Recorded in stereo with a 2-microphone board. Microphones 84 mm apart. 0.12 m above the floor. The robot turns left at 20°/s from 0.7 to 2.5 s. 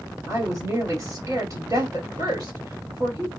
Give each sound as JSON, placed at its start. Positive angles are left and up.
{"t": 0.3, "sound": "a woman speaking", "azimuth_deg": -45, "distance_m": 2.0}